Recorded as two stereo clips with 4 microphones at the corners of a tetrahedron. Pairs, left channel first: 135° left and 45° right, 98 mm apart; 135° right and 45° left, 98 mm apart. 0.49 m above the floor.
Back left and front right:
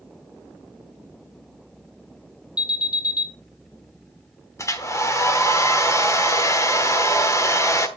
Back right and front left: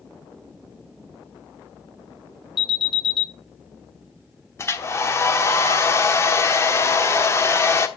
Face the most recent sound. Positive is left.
turn(degrees=175)